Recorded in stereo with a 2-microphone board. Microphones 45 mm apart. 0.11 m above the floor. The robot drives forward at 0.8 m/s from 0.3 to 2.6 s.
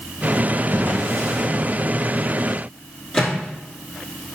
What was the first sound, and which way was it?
A drawer, 55° right (ahead or behind).